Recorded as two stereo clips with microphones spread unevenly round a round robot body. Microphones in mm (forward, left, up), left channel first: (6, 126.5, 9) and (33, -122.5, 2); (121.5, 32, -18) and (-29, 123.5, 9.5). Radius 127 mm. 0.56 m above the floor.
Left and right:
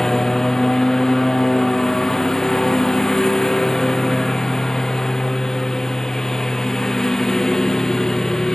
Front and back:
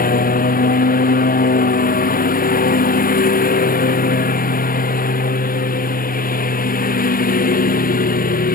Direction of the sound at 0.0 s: 10° left.